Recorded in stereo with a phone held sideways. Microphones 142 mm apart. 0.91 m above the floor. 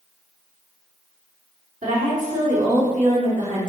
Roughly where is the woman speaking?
Right.